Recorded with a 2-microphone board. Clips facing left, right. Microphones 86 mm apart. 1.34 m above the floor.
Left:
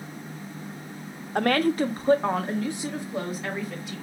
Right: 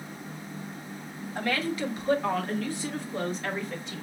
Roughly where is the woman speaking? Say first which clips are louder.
Left 7 dB; left.